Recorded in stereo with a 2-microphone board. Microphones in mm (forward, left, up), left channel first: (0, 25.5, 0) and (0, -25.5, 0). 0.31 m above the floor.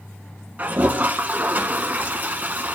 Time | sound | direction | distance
0.6 | a toilet flushing | 40° right (ahead or behind) | 1.1 m